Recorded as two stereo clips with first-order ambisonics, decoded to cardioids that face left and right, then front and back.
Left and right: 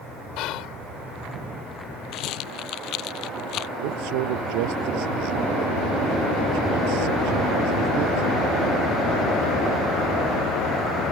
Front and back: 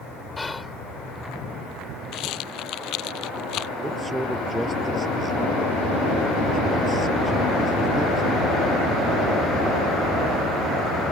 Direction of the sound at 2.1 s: 45° left.